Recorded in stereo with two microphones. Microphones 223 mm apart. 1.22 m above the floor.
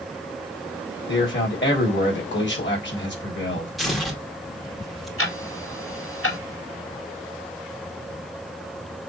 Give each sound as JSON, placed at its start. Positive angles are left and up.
{"t": 1.1, "sound": "a man speaking", "side_deg": 55, "distance_m": 3.5}
{"t": 3.8, "sound": "tearing paper", "side_deg": 0, "distance_m": 2.0}
{"t": 5.2, "sound": "ticking", "side_deg": 70, "distance_m": 4.0}